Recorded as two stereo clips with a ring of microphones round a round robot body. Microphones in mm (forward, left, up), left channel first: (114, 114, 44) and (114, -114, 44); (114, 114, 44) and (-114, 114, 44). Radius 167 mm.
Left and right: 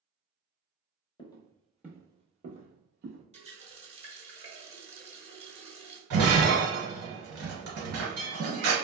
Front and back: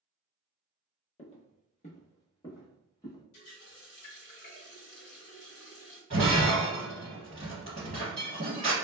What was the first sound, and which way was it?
Footsteps, 35° left.